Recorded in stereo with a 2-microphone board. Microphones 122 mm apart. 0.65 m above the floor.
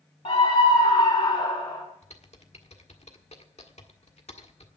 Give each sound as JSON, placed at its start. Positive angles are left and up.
{"t": 0.2, "sound": "a scream", "side_deg": 50, "distance_m": 1.4}
{"t": 2.0, "sound": "typing on a keyboard", "side_deg": 65, "distance_m": 1.5}